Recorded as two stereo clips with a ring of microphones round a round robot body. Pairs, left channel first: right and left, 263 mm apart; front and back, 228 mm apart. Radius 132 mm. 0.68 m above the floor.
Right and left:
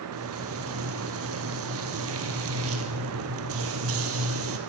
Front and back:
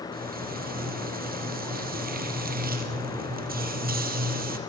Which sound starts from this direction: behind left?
Frying, at 0.1 s.